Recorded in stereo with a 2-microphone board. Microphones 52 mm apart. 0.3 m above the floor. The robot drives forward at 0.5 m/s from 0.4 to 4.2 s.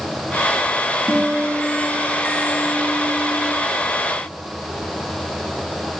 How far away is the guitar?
About 2.5 m.